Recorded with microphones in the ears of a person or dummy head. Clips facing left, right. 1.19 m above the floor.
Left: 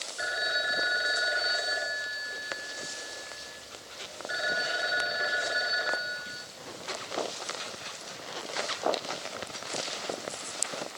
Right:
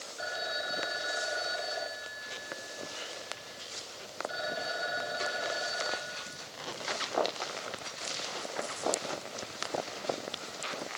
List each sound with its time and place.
0.2 s a phone ringing: 25° left (ahead or behind), 3 m